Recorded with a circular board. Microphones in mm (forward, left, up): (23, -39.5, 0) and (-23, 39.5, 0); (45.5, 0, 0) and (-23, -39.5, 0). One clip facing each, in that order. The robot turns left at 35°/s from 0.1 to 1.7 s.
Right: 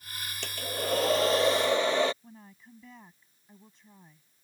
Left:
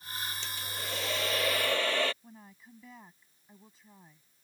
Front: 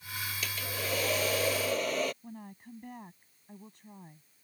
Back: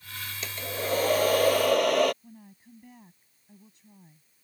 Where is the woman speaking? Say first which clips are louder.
Right 1 dB, front 5 dB; 35° left.